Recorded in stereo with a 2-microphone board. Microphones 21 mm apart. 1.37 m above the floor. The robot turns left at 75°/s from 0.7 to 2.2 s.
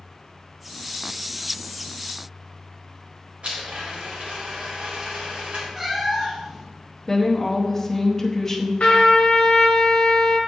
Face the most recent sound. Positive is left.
turn(degrees=60)  # may be behind; listen again after turning